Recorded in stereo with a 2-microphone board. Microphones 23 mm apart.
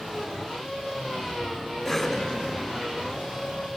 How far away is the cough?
About 1.7 m.